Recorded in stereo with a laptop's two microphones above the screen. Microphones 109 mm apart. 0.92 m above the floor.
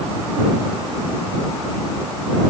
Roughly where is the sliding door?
I don't hear a sliding door.